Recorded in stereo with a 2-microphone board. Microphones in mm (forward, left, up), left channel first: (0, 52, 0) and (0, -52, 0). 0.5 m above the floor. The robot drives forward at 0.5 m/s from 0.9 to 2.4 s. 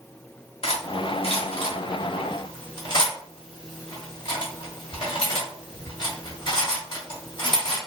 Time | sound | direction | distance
0.6 | cutlery clinking | 70° left (ahead or behind) | 1.0 m